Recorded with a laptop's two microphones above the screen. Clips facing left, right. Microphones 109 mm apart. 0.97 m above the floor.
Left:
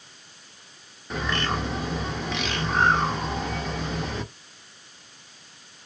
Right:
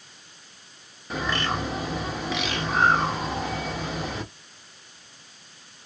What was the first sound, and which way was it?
A bird, 5° right (ahead or behind).